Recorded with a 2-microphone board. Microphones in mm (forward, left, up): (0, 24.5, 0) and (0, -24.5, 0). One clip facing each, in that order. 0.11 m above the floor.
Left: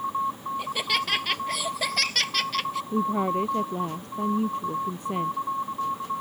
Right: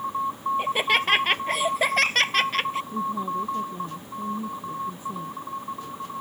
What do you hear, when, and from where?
0.6 s laughter: 30° right (ahead or behind)
2.9 s a woman speaking: 65° left (ahead or behind)